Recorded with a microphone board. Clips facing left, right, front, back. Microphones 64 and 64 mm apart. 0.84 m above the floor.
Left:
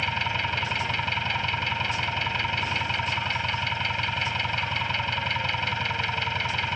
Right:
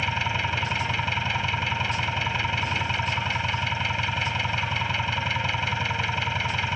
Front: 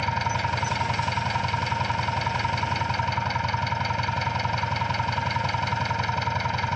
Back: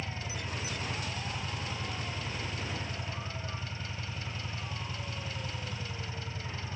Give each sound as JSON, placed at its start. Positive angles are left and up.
{"t": 0.0, "sound": "an engine running", "azimuth_deg": -5}